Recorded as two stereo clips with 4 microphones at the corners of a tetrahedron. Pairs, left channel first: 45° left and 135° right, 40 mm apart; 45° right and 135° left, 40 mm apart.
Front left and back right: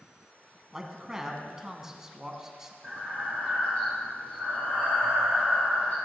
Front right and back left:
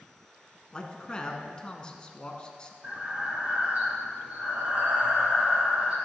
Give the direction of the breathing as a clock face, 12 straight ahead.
9 o'clock.